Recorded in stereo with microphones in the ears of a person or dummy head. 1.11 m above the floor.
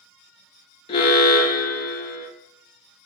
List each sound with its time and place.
0.9 s an alarm: 25° left (ahead or behind), 0.6 m